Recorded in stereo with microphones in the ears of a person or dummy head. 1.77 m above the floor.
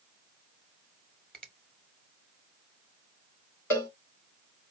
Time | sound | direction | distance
1.3 | a finger snap | 5° left (ahead or behind) | 1.3 m
3.7 | a cowbell | 10° left (ahead or behind) | 2.5 m